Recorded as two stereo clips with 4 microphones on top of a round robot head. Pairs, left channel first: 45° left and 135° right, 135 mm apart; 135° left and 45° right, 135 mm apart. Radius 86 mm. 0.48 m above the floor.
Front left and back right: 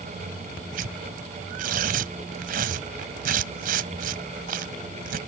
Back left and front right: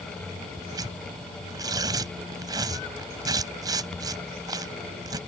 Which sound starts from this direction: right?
Tearing paper, at 0.7 s.